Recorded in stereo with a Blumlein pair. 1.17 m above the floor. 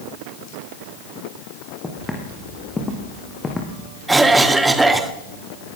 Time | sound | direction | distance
1.8 | footsteps | 5° left | 5 m
4.1 | a cough | 10° right | 2 m